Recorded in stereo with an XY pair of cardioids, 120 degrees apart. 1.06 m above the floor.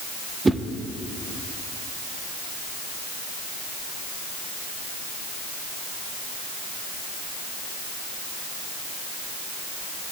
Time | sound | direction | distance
0.5 | a whoosh | 20° right | 0.5 m